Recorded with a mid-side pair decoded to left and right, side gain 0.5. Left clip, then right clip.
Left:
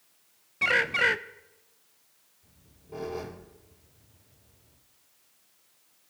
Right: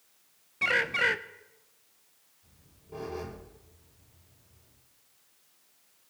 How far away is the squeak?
About 6.5 m.